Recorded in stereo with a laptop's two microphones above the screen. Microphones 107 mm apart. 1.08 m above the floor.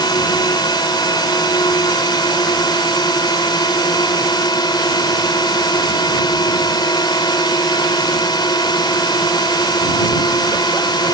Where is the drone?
40° left (ahead or behind).